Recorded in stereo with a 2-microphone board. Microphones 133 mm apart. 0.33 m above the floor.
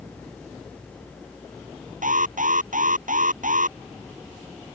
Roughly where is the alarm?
Right.